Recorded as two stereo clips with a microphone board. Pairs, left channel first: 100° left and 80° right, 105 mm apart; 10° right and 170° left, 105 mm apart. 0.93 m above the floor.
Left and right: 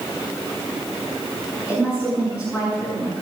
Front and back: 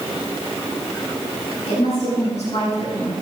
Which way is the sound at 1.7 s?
Straight ahead.